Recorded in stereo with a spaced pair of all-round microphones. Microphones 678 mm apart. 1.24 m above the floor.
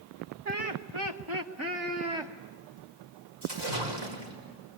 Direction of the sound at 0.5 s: 65° right (ahead or behind).